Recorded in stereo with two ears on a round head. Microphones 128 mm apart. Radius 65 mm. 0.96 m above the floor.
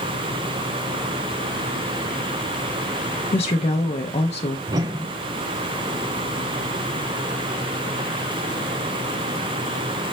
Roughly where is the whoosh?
Right.